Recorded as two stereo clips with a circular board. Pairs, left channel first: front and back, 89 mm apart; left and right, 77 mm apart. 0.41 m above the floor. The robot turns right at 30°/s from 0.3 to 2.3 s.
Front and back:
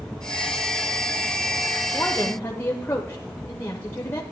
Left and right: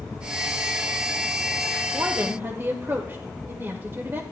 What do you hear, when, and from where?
1.9 s a woman speaking: 60° right, 1.1 m; by 4.2 s 50° right, 1.1 m